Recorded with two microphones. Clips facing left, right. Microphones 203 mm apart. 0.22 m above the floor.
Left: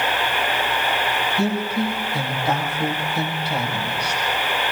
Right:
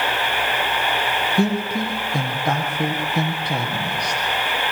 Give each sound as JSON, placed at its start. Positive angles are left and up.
{"t": 1.4, "sound": "a woman speaking", "side_deg": -55, "distance_m": 6.5}